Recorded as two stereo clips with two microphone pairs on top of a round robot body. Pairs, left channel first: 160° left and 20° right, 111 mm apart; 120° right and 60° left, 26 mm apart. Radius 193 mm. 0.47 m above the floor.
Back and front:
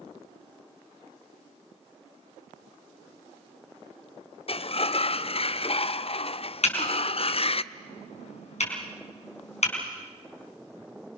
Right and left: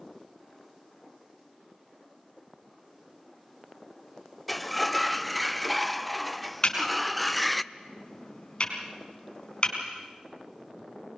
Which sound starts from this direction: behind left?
A sliding door, at 4.5 s.